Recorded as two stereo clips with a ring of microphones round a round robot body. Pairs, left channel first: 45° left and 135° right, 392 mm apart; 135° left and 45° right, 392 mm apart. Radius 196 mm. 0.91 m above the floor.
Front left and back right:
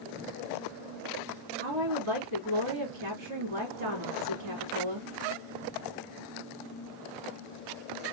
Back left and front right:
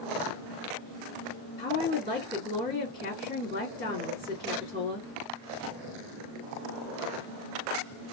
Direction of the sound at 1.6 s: 145° right.